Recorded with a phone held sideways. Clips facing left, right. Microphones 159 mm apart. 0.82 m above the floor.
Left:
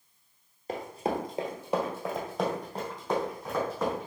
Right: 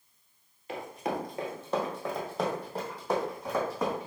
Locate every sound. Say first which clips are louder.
0.7 s running footsteps: left 2 dB; 40° left (ahead or behind), 1.1 m; by 4.1 s 15° right (ahead or behind), 3 m